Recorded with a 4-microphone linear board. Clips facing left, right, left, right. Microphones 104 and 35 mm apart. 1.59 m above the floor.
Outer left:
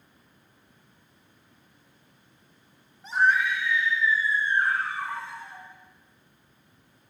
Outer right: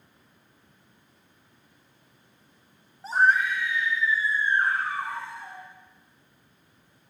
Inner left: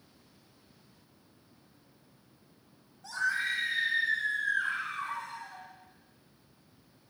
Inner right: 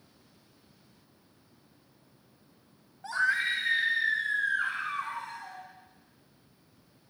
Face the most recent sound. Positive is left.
turn(degrees=-50)  # may be behind; listen again after turning